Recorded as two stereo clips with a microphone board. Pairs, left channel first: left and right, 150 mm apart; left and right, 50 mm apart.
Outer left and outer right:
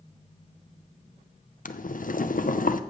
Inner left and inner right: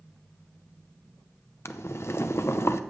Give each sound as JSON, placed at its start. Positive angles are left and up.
{"t": 1.6, "sound": "boiling", "side_deg": 60, "distance_m": 0.7}